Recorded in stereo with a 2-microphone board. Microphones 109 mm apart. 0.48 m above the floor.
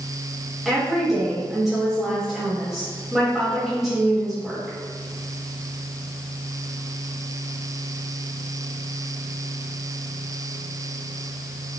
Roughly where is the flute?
I don't hear a flute.